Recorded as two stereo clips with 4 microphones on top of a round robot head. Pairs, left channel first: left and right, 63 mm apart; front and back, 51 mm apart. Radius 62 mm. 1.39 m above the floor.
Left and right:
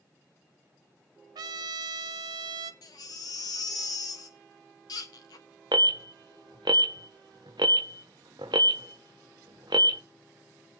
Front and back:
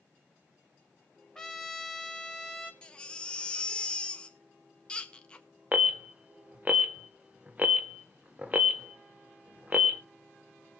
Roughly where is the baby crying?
Left.